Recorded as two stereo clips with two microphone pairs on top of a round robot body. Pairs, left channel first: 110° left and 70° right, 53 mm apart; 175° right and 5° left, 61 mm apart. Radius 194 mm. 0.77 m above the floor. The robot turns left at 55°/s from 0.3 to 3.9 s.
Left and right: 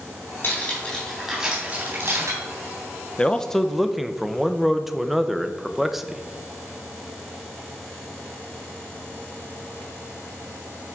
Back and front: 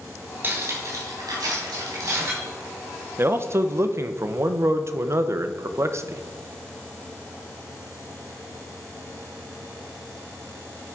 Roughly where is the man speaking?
Ahead left.